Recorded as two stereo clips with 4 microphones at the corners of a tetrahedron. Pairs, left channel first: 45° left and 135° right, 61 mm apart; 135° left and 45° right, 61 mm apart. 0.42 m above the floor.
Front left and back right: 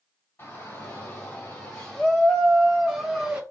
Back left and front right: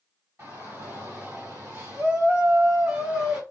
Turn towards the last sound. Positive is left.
turn(degrees=-105)